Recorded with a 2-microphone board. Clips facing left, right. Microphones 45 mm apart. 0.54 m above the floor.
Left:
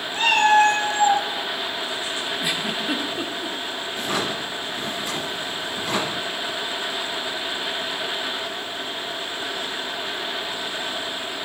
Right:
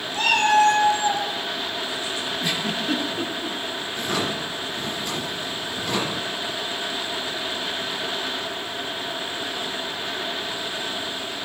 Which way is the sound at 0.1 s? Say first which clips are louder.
Left 2 dB; 30° left (ahead or behind).